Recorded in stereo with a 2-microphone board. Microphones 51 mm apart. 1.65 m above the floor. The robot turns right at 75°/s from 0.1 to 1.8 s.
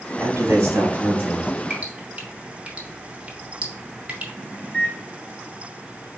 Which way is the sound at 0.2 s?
105° right.